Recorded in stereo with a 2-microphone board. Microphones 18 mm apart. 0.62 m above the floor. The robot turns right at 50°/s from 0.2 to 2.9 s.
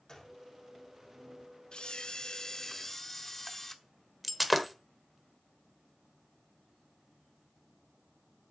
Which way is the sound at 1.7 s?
100° left.